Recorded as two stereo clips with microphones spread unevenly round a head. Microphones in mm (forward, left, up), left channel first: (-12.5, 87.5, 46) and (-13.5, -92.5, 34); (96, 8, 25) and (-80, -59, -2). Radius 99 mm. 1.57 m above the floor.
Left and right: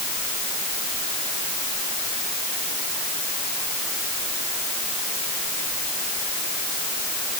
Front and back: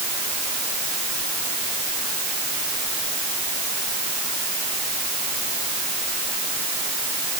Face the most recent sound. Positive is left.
No sound to turn to.